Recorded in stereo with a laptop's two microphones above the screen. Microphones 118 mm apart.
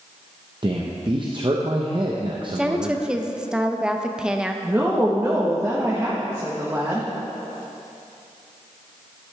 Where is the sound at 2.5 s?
5° right (ahead or behind), 0.5 m.